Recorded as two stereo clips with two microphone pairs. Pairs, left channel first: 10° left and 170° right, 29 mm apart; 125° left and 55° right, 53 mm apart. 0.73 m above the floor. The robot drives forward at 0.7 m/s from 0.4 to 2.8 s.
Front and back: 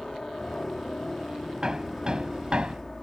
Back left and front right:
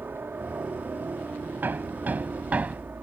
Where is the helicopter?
40° right; by 3.0 s 45° right.